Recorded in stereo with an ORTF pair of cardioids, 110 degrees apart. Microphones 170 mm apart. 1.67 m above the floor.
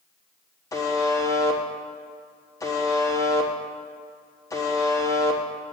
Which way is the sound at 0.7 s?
20° left.